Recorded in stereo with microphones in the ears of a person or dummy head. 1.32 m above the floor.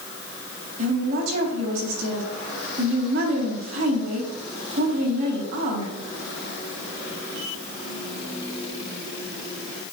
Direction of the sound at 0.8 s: 85° right.